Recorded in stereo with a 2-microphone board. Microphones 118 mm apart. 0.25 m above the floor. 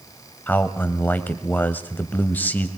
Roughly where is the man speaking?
Centre.